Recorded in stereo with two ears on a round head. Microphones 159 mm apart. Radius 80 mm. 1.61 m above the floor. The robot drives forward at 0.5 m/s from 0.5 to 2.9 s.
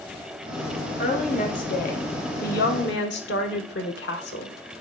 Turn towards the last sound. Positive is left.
turn(degrees=65)  # may be behind; listen again after turning